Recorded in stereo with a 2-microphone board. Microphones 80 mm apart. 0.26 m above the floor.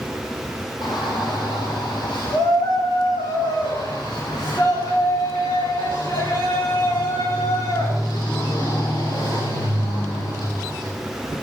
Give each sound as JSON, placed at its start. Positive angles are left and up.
{"t": 0.8, "sound": "a shout", "side_deg": 70, "distance_m": 8.0}